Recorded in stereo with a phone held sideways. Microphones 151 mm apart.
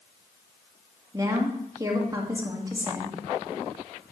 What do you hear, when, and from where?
1.1 s a woman speaking: 25° right (ahead or behind), 1.7 m